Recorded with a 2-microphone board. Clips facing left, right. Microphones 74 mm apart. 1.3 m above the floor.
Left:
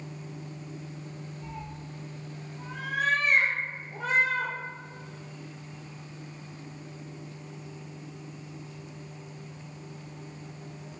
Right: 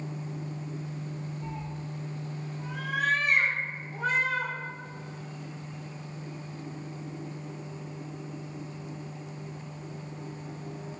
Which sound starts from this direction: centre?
A cat meowing, at 1.4 s.